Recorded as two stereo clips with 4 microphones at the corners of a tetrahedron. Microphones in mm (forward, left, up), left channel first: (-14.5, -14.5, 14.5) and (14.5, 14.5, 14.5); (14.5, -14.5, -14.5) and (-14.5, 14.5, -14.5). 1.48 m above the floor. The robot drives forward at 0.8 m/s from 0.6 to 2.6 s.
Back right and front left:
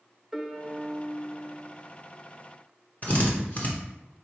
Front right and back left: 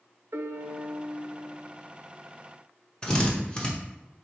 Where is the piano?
130° left, 0.5 m; by 1.8 s 165° left, 1.3 m.